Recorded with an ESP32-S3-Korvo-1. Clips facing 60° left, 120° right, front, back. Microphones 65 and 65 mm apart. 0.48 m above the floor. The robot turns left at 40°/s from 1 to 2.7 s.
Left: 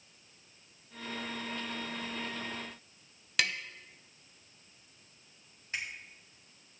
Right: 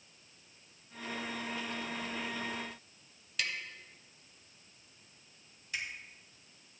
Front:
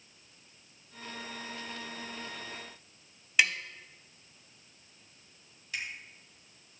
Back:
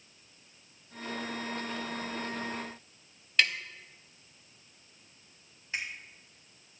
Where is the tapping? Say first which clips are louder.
Left 5 dB, front 1 dB; 80° left, 0.6 m.